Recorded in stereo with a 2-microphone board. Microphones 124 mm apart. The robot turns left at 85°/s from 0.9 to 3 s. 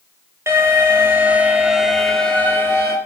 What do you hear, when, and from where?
0.5 s an alarm: 20° right (ahead or behind), 2 m; by 3.0 s 20° left (ahead or behind), 2 m